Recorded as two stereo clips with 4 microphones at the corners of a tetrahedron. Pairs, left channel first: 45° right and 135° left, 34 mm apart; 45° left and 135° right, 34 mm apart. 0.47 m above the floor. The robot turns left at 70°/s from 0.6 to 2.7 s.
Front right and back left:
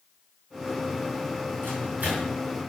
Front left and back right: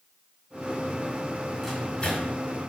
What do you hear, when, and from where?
1.6 s a microwave: 130° left, 4.5 m; by 2.4 s 80° left, 4.5 m